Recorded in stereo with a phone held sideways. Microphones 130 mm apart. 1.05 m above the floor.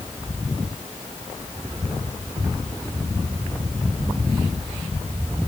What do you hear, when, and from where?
Only background noise.